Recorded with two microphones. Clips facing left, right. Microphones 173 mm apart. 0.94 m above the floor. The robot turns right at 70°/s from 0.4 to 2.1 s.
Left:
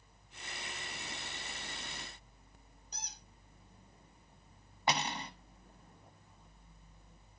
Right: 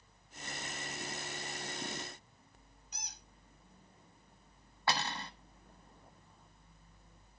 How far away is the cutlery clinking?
About 1.2 m.